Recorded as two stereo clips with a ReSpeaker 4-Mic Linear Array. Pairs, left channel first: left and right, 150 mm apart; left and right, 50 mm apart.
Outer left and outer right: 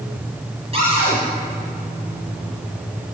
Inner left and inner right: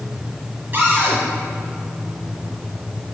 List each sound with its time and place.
0.7 s a cupboard door: 35° right (ahead or behind), 3.5 m